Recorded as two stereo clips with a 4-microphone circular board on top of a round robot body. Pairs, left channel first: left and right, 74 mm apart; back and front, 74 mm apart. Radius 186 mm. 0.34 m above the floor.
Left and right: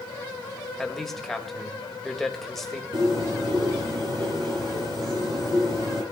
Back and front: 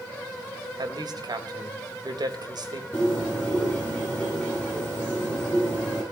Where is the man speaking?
5° left, 3 m.